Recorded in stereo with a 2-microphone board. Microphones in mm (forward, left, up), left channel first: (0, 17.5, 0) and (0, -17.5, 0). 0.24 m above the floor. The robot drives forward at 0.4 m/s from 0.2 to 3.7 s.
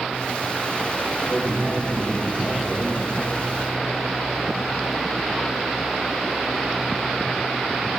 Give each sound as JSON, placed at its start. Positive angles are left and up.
{"t": 1.3, "sound": "a man speaking", "side_deg": 50, "distance_m": 5.0}